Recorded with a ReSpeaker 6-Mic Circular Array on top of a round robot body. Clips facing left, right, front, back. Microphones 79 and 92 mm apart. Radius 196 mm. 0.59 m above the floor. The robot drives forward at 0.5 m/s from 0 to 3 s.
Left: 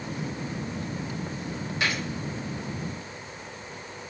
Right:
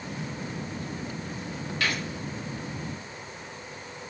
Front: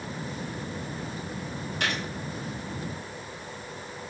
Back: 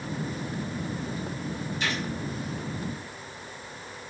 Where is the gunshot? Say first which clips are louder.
Left 1 dB, front 1 dB; 20° left, 4 m.